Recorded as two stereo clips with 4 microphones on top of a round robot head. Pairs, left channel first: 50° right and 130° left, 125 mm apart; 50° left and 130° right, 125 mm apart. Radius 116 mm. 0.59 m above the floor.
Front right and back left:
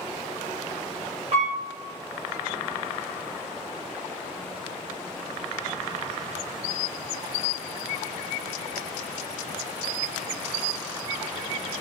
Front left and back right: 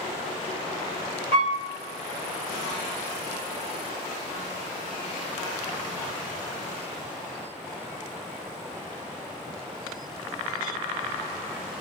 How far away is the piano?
About 0.9 m.